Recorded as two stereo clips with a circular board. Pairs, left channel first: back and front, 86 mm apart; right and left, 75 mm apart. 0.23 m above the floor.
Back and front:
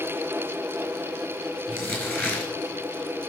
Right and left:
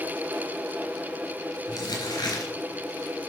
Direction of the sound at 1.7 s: 115° right.